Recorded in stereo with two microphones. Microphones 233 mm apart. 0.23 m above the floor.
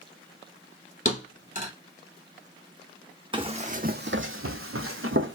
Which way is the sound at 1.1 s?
35° left (ahead or behind).